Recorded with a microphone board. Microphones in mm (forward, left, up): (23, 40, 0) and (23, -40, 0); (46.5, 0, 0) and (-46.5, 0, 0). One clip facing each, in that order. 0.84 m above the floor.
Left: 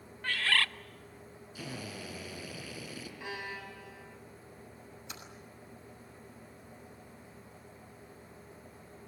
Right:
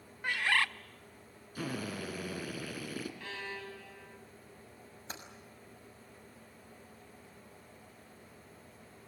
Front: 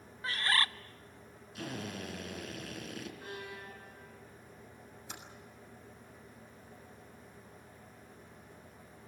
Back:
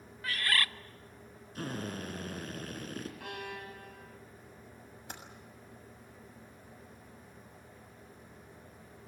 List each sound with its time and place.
0.2 s a bird: 35° right, 0.7 m
1.6 s a drill: 135° right, 4 m
3.2 s a violin: 165° left, 4.5 m
5.1 s typing on a keyboard: 145° right, 6.5 m